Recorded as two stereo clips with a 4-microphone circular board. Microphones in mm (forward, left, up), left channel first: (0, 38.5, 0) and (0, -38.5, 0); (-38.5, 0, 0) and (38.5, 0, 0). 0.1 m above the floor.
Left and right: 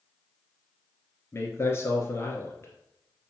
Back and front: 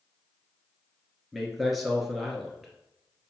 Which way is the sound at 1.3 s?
90° left.